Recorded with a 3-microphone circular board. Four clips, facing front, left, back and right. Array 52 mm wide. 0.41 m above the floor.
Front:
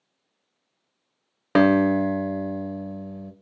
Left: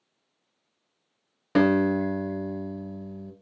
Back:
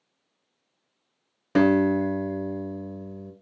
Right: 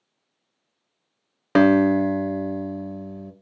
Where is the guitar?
45° right, 0.7 m.